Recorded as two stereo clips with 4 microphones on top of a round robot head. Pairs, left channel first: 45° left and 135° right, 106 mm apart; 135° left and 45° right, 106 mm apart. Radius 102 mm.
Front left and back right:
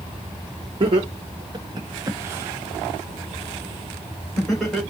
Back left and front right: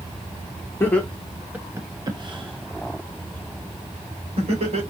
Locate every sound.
0.8 s laughter: 160° right, 1.1 m; by 4.8 s 40° right, 3 m